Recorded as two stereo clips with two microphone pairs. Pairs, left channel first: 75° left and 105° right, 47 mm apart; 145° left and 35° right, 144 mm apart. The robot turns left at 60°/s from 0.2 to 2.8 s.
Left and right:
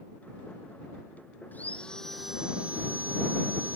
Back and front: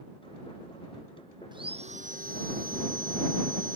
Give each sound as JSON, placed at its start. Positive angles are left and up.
{"t": 1.5, "sound": "sawing", "azimuth_deg": 25}